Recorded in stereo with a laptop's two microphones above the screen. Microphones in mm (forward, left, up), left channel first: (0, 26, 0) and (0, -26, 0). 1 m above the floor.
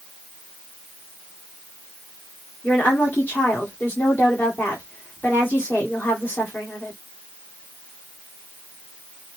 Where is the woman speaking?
35° left (ahead or behind), 2 m.